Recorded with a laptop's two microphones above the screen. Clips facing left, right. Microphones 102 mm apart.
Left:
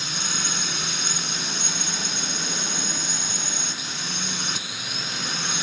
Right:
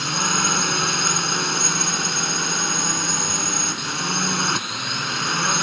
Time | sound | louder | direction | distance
0.0 | a drone | right 9 dB | 60° right (ahead or behind) | ?